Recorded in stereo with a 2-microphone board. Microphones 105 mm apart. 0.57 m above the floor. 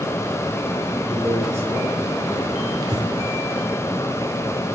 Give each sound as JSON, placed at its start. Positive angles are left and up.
{"t": 1.0, "sound": "a man speaking", "side_deg": 5, "distance_m": 7.0}
{"t": 2.8, "sound": "breathing", "side_deg": -40, "distance_m": 1.6}